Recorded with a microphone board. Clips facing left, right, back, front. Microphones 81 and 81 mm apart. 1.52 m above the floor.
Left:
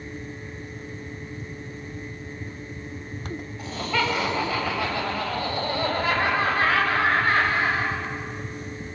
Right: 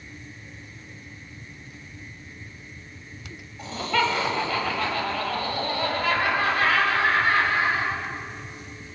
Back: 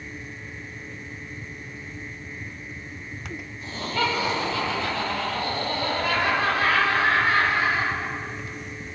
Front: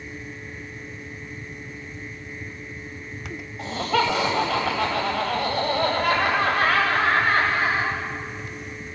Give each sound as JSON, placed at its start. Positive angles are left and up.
{"t": 3.6, "sound": "laughter", "azimuth_deg": 5, "distance_m": 8.0}